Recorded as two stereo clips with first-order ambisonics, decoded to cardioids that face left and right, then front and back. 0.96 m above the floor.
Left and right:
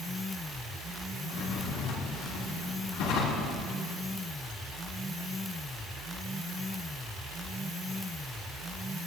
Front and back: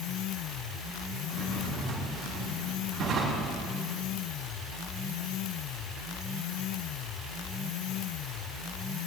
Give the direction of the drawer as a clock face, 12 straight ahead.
8 o'clock.